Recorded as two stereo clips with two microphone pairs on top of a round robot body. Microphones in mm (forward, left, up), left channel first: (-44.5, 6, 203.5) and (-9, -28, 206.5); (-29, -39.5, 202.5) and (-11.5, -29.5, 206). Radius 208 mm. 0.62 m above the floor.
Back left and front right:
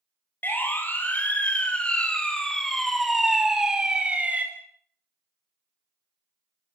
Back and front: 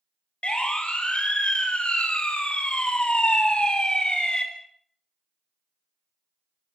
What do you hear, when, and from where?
0.4 s a siren: straight behind, 6 m; by 4.5 s 105° right, 4.5 m